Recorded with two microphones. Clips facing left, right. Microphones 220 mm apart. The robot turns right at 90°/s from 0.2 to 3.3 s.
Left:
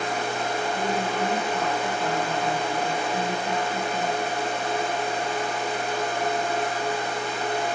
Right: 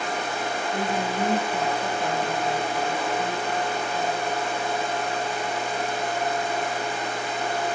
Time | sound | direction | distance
0.7 | a woman speaking | 115° right | 2.5 m